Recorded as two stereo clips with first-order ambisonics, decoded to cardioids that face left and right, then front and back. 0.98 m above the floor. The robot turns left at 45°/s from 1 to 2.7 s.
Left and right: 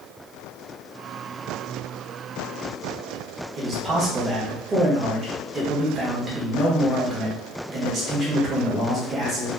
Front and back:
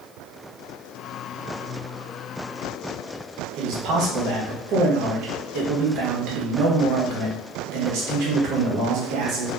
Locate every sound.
3.6 s a man speaking: 155° right, 0.8 m